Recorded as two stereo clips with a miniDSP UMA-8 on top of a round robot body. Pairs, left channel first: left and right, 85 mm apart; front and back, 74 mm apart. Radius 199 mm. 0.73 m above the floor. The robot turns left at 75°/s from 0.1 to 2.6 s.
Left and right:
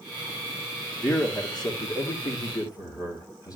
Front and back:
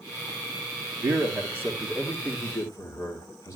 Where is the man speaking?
170° left, 2 m; by 3.6 s 50° left, 2 m.